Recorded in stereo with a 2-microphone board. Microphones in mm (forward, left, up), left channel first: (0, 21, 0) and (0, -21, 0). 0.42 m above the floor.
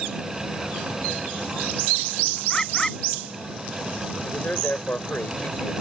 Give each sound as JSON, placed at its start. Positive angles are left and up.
{"t": 2.5, "sound": "a bird", "side_deg": 15}
{"t": 4.2, "sound": "a man speaking", "side_deg": 45}